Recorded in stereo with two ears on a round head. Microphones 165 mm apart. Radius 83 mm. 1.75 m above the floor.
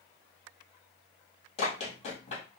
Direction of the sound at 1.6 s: 35° left (ahead or behind).